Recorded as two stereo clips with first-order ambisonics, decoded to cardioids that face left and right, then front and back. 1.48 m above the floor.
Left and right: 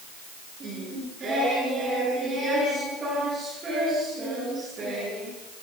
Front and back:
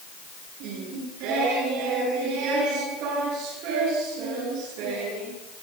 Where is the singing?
155° right, 9.5 m.